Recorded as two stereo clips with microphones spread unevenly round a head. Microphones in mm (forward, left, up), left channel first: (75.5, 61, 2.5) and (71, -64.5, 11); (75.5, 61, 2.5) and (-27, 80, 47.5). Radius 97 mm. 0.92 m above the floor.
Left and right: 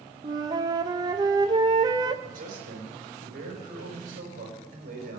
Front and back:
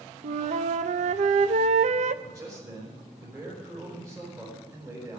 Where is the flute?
155° right, 0.5 m.